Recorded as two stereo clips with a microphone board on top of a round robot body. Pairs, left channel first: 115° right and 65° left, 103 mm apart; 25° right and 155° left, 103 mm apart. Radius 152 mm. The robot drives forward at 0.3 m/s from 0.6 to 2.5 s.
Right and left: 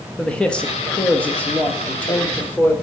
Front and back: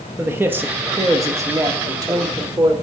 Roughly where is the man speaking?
Behind.